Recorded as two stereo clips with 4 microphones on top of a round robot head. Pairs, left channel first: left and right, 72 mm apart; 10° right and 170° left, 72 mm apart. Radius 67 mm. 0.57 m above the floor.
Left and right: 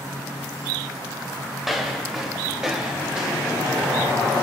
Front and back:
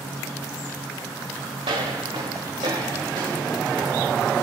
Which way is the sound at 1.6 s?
175° right.